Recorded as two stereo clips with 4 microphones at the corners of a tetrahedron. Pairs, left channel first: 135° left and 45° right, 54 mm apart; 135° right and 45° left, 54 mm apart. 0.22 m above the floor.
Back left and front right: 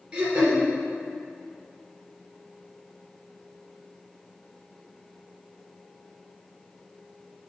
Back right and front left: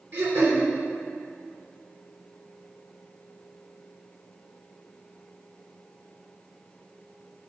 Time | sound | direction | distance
0.1 | throat clearing | 25° left | 2.5 m